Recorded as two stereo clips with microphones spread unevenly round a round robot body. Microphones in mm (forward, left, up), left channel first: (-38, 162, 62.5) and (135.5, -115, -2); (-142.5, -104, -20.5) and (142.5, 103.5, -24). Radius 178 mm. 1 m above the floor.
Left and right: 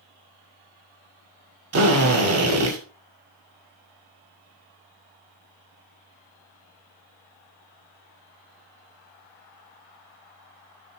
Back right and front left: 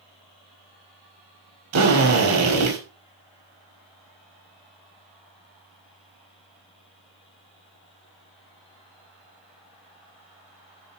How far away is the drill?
About 6 m.